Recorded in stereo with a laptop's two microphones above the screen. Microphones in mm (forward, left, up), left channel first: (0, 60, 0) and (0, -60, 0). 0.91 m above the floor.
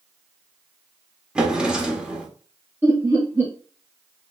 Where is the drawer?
10° right (ahead or behind), 1.0 m.